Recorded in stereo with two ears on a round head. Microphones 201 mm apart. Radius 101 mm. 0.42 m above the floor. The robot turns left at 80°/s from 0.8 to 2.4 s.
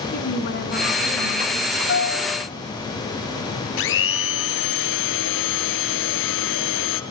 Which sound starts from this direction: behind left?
A woman speaking, at 0.1 s.